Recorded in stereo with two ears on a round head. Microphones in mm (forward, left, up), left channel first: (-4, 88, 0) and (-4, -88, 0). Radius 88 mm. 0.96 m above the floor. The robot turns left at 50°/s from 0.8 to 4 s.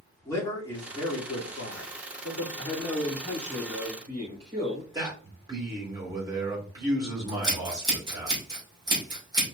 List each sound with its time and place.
0.2 s a man speaking: 160° left, 2.5 m; by 2.5 s 75° left, 2.5 m
2.6 s a man speaking: 40° left, 3.5 m; by 4.8 s 30° right, 3.5 m
4.9 s a man speaking: 20° right (ahead or behind), 2.5 m
7.3 s scissors: 20° right (ahead or behind), 2.5 m